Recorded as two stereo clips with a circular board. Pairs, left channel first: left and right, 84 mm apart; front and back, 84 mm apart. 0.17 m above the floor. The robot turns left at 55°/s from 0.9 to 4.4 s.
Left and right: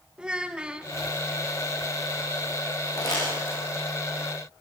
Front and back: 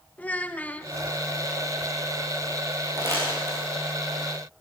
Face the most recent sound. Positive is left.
turn(degrees=60)